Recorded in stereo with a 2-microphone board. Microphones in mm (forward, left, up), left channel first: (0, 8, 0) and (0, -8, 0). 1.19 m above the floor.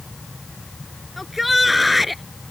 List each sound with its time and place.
1.2 s a shout: 10° right (ahead or behind); by 2.2 s 5° right (ahead or behind)